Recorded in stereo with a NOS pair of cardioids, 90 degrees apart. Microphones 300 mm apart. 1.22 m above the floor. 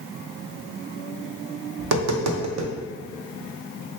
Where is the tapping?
60° right, 0.8 m.